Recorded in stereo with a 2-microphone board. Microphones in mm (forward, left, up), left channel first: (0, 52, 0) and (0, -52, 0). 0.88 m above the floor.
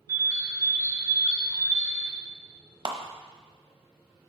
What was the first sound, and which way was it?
A bird, 30° right (ahead or behind).